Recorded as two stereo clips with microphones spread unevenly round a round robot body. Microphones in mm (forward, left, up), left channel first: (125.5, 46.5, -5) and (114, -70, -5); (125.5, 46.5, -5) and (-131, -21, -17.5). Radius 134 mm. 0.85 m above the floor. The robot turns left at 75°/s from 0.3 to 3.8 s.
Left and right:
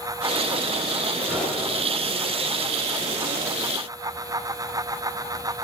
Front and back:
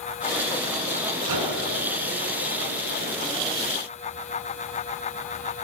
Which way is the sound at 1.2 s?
175° right.